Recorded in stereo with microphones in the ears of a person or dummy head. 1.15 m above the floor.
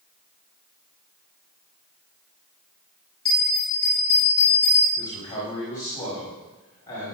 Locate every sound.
3.2 s a bell: 30° left (ahead or behind), 5 m
5.0 s a man speaking: 20° left (ahead or behind), 6.5 m